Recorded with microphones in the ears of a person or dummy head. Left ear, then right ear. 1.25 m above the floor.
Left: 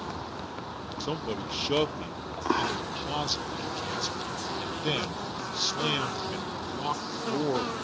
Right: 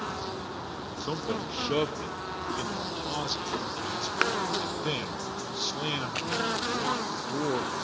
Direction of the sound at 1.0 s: 15° left (ahead or behind).